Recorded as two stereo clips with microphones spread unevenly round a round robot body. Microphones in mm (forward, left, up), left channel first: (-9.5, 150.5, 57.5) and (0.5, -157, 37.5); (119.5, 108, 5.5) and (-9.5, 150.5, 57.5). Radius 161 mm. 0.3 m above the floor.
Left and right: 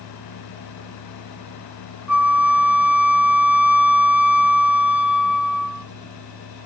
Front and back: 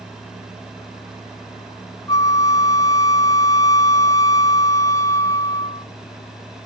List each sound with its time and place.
2.1 s a flute: 5° right, 0.8 m